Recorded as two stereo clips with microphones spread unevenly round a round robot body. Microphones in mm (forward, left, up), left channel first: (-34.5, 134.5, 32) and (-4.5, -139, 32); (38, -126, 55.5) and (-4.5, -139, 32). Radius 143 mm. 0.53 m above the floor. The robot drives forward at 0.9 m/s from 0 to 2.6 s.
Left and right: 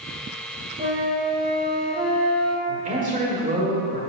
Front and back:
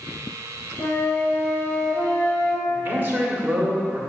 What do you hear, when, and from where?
0.8 s a flute: 25° right, 2.0 m; by 2.6 s 100° right, 1.3 m
2.7 s a man speaking: 145° right, 1.9 m